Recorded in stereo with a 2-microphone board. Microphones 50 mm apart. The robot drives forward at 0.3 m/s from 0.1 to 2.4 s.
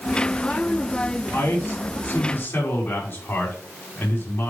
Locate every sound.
1.3 s a man speaking: 55° left (ahead or behind), 4 m; by 4.5 s 50° left (ahead or behind), 4 m